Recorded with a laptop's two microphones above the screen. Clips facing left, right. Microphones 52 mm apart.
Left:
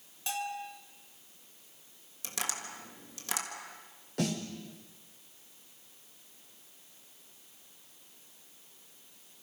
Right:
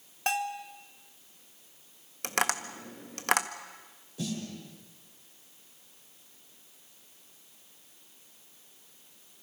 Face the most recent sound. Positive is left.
turn(degrees=75)  # may be behind; listen again after turning